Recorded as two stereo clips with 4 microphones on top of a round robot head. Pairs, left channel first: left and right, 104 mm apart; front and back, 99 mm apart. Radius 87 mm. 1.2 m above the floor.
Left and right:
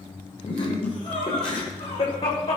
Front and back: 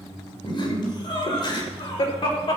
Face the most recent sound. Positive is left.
turn(degrees=30)